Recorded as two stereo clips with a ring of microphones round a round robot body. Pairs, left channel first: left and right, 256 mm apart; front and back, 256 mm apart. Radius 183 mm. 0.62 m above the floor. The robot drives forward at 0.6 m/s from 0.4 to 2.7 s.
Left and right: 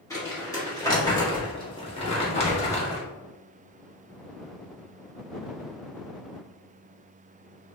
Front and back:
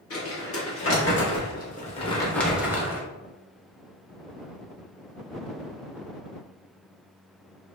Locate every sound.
0.1 s crumpling: 15° left, 1.5 m; by 3.0 s 110° left, 0.8 m